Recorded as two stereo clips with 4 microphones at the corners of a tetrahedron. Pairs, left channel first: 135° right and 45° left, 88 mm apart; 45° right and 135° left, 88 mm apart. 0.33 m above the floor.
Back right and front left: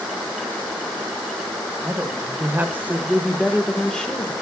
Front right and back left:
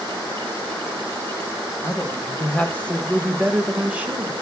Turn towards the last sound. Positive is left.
turn(degrees=170)